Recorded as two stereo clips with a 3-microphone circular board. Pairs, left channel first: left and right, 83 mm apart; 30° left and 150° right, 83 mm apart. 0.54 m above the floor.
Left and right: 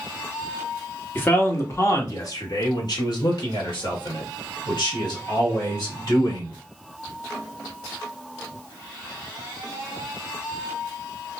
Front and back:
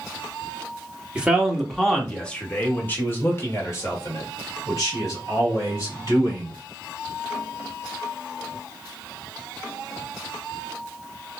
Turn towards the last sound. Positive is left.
turn(degrees=70)